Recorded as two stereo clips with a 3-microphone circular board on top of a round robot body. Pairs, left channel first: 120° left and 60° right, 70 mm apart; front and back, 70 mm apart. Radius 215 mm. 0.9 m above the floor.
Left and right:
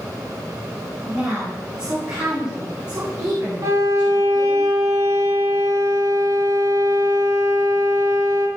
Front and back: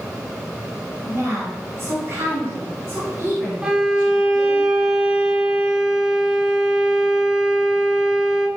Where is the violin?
100° right, 1.6 m.